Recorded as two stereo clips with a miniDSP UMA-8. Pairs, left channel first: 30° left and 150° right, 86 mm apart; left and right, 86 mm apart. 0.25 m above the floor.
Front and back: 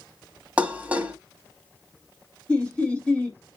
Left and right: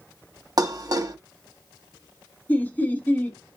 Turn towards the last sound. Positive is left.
turn(degrees=80)